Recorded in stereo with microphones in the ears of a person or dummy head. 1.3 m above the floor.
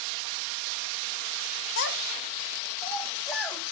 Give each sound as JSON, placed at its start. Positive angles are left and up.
{"t": 1.8, "sound": "a child speaking", "side_deg": 70, "distance_m": 0.7}